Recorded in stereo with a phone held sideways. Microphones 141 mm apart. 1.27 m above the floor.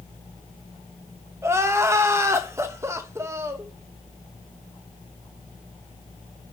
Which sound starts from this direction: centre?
Crying, at 1.4 s.